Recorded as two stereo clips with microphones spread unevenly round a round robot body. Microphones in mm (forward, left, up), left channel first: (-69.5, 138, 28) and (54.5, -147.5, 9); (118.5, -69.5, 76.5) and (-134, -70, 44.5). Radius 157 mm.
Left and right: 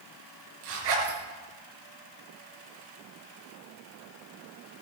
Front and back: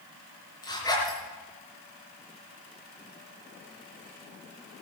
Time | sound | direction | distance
0.6 | a zipper | 75° right | 6 m